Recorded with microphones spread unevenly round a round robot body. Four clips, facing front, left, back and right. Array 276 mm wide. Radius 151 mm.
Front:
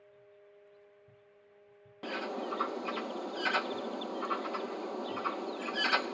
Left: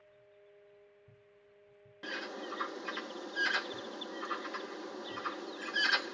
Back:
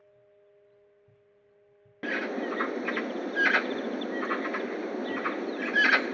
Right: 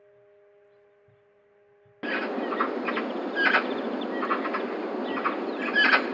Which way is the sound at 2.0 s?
95° right.